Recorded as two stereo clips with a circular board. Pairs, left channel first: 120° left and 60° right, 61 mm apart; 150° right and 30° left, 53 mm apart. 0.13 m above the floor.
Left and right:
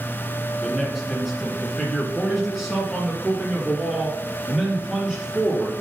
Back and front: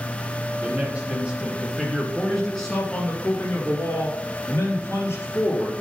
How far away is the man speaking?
About 1.8 m.